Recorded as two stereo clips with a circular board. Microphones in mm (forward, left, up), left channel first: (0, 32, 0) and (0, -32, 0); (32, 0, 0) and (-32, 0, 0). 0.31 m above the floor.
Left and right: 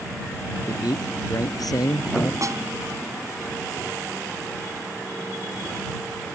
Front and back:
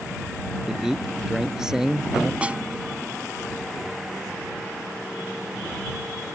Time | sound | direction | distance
0.7 | a man speaking | 100° left | ?
2.4 | a snare drum | 110° right | ?